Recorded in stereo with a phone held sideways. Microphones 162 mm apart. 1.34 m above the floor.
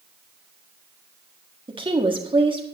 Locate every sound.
1.7 s a woman speaking: 30° right (ahead or behind), 1.6 m